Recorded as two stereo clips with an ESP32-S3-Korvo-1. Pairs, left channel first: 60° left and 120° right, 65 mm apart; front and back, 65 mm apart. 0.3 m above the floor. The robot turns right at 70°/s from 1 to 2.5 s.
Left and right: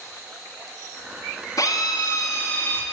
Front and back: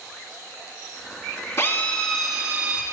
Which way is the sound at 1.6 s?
45° left.